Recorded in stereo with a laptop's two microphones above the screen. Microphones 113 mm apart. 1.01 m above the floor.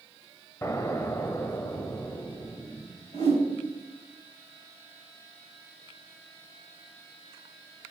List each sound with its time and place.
0.6 s an explosion: 25° left (ahead or behind), 0.8 m
3.1 s a whoosh: 60° left (ahead or behind), 4 m